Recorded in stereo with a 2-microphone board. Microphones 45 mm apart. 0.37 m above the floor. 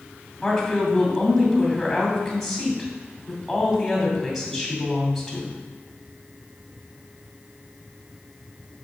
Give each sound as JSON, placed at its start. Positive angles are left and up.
{"t": 0.4, "sound": "a woman speaking", "side_deg": 0, "distance_m": 2.5}